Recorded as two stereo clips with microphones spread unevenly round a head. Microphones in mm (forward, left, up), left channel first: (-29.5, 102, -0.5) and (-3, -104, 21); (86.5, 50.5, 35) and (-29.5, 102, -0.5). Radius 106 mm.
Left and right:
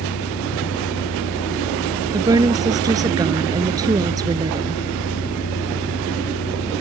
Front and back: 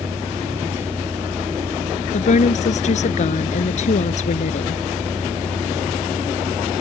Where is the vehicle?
85° left.